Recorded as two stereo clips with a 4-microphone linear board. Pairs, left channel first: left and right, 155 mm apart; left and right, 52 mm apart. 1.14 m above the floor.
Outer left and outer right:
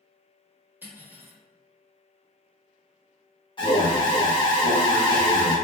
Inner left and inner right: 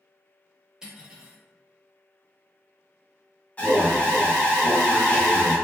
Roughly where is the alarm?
Left.